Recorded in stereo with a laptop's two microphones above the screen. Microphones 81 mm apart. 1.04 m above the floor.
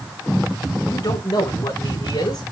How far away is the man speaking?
About 4 m.